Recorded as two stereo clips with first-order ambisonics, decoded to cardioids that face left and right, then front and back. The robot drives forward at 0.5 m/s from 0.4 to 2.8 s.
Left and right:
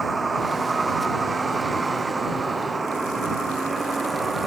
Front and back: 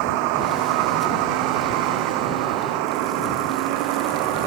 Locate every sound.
0.0 s a vehicle: 165° right; by 4.5 s 170° right